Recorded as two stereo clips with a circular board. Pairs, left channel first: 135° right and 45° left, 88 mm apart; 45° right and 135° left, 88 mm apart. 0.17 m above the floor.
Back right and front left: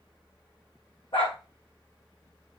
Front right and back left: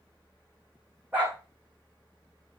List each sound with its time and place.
1.1 s a dog barking: 150° right, 4.5 m